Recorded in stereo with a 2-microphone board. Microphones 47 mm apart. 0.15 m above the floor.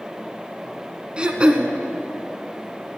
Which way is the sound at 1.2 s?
20° right (ahead or behind).